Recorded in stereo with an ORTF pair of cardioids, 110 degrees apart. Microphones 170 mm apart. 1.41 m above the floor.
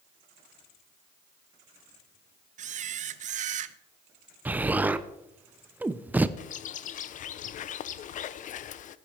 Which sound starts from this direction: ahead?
An explosion, at 4.5 s.